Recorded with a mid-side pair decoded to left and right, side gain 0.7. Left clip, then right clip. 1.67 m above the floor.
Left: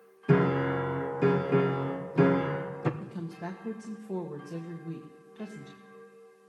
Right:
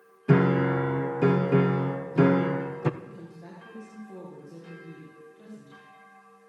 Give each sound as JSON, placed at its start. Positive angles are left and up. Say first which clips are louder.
{"t": 0.3, "sound": "a piano", "louder": "right 2 dB", "azimuth_deg": -10, "distance_m": 0.9}
{"t": 3.0, "sound": "a woman speaking", "louder": "left 5 dB", "azimuth_deg": 50, "distance_m": 1.7}